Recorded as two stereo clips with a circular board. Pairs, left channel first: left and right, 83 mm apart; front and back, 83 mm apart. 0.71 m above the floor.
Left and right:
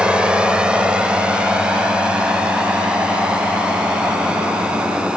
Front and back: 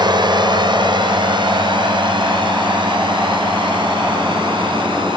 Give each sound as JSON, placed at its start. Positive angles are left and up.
{"t": 0.0, "sound": "a drone", "azimuth_deg": -165}